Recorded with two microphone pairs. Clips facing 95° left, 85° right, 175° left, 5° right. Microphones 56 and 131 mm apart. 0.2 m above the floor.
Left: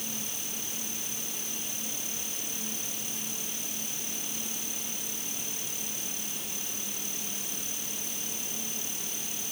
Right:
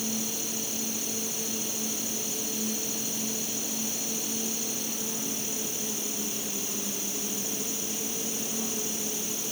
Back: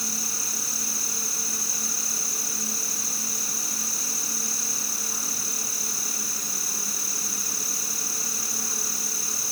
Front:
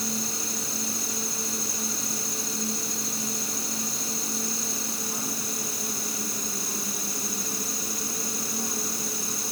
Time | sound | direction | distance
0.0 | an insect | 75° right | ?